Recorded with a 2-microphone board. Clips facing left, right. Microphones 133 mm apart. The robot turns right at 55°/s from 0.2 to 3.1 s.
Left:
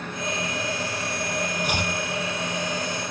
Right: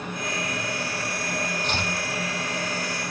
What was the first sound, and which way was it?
Chopping, 10° left (ahead or behind).